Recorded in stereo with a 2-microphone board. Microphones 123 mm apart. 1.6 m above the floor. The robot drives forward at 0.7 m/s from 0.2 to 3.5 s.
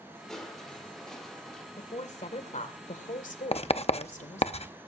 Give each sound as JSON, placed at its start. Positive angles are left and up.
{"t": 0.3, "sound": "crushing", "side_deg": 5, "distance_m": 4.0}
{"t": 1.8, "sound": "a woman speaking", "side_deg": 60, "distance_m": 2.0}
{"t": 3.5, "sound": "writing", "side_deg": 55, "distance_m": 0.6}